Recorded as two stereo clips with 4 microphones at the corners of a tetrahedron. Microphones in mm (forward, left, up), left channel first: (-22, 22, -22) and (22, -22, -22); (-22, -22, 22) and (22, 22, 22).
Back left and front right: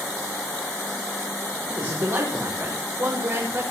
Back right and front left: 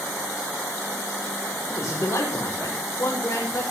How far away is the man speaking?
About 7.5 m.